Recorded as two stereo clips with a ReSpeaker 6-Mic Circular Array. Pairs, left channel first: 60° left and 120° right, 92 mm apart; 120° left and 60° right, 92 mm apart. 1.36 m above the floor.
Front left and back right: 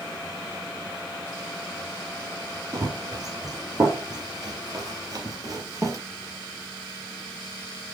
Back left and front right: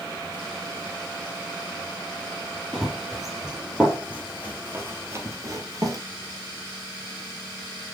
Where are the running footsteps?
150° right, 2 m; by 6.0 s 85° right, 1.9 m.